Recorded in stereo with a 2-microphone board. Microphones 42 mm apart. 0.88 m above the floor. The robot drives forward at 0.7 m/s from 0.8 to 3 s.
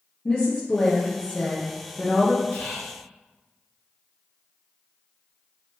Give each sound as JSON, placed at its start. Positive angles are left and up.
{"t": 0.2, "sound": "a woman speaking", "side_deg": 20, "distance_m": 0.9}
{"t": 2.5, "sound": "whispering", "side_deg": 30, "distance_m": 1.7}